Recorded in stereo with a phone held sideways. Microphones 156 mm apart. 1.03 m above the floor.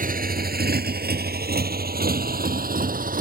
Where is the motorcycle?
60° right (ahead or behind).